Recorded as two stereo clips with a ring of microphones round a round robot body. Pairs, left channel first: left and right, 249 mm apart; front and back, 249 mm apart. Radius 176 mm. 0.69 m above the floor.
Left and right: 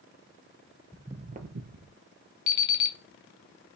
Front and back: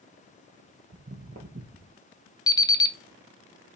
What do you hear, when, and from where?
0.9 s footsteps: 165° left, 0.7 m; by 1.9 s 120° right, 1.7 m
2.5 s an alarm clock: 75° left, 0.7 m